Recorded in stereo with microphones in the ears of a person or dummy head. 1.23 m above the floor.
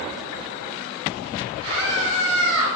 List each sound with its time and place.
1.6 s a scream: 30° right (ahead or behind), 4 m; by 2.7 s 50° right (ahead or behind), 3.5 m